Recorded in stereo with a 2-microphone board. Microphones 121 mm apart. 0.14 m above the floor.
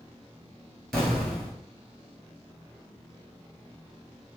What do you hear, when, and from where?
0.9 s an explosion: 5° left (ahead or behind), 1.0 m